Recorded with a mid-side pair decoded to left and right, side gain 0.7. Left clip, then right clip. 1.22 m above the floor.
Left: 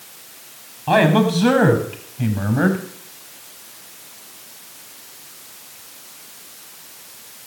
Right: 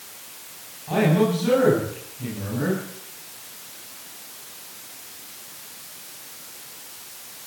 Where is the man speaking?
70° left, 7.5 m.